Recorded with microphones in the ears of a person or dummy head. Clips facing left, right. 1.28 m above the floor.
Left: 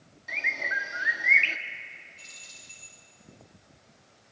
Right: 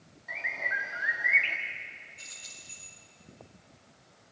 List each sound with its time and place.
0.3 s a bird: 40° left (ahead or behind), 2.0 m
2.2 s keys jangling: 10° right (ahead or behind), 9 m